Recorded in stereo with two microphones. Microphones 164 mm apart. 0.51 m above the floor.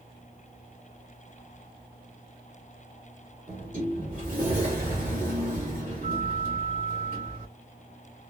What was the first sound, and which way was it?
A sliding door, 55° right (ahead or behind).